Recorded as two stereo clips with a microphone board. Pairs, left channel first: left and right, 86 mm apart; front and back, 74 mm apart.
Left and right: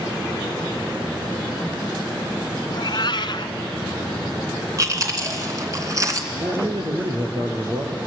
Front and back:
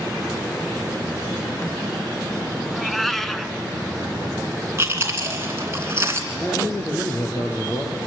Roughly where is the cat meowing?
Left.